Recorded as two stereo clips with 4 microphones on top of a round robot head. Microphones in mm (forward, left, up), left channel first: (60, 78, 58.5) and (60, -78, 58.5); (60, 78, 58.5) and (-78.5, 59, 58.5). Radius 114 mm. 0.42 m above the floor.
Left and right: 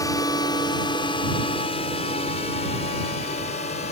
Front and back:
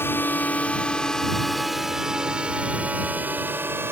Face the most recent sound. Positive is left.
turn(degrees=120)